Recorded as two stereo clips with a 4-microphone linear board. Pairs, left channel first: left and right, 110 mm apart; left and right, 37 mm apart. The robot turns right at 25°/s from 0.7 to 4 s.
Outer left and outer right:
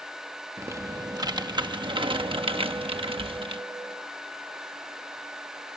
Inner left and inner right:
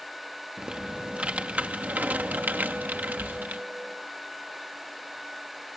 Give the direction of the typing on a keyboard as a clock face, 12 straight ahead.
5 o'clock.